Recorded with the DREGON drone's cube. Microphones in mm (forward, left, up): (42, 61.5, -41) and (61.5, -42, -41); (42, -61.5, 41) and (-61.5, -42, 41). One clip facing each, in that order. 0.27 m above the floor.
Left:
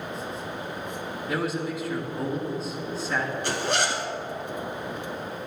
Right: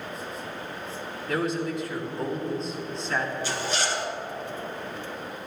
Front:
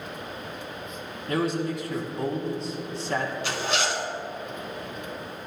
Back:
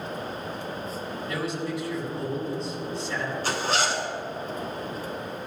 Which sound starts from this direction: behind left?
A zipper, at 3.4 s.